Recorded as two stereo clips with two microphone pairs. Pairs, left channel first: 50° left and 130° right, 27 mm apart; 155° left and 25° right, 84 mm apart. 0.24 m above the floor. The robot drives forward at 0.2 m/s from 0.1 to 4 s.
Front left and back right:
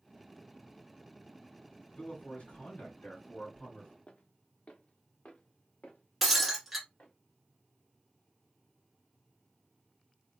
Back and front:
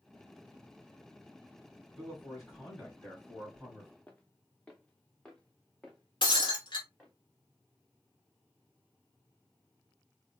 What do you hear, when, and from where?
2.0 s a man speaking: 65° left, 3 m; by 3.9 s 75° left, 3 m
4.1 s footsteps: 85° left, 0.8 m; by 7.1 s 75° left, 2.5 m
6.2 s breaking glass: 145° left, 1.4 m